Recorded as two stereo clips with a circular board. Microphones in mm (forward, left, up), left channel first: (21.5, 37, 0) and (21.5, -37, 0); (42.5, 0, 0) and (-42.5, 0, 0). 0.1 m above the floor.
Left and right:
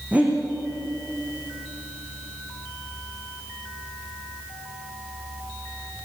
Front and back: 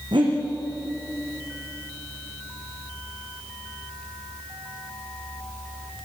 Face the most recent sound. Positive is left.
turn(degrees=-160)